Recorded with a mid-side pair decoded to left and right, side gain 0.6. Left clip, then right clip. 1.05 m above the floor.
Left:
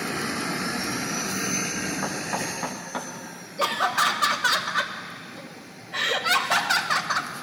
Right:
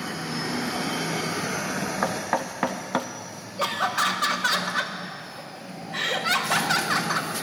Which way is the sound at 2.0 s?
40° right.